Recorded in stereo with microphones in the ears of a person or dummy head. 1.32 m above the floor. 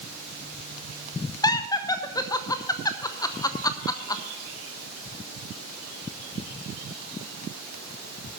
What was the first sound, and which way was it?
Laughter, 20° left (ahead or behind).